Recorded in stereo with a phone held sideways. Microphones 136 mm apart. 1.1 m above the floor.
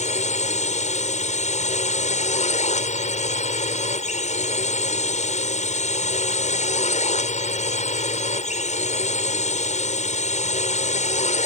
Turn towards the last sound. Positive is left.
turn(degrees=60)  # may be behind; listen again after turning